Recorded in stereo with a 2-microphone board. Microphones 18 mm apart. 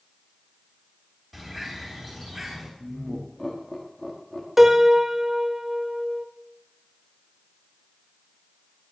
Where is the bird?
10° left (ahead or behind), 3.5 m.